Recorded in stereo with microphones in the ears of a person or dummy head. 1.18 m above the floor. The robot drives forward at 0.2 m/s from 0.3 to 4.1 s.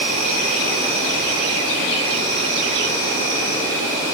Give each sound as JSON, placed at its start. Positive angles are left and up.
{"t": 0.0, "sound": "an insect", "side_deg": -40, "distance_m": 0.9}